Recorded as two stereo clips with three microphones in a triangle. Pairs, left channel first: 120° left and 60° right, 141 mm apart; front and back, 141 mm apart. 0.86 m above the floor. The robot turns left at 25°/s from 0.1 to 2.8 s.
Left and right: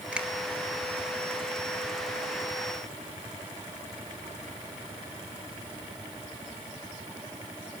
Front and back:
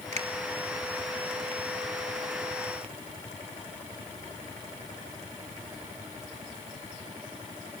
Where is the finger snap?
140° right, 2 m; by 0.3 s 145° right, 2 m.